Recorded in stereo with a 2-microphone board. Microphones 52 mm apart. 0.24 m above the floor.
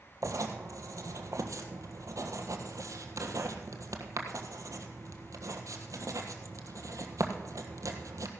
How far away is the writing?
About 1.3 m.